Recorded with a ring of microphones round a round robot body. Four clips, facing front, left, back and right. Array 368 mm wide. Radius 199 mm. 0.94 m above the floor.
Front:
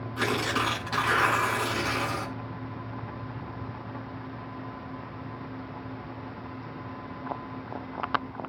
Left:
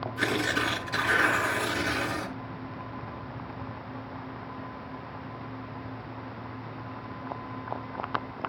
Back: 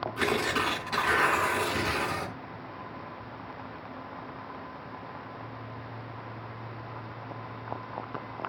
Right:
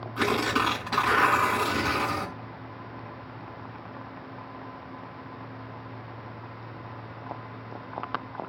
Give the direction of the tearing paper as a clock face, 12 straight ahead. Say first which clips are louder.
Right 4 dB, front 1 dB; 3 o'clock.